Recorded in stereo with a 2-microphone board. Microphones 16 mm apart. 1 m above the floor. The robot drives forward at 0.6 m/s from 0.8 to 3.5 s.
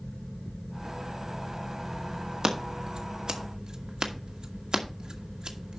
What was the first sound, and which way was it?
Scissors, 55° right (ahead or behind).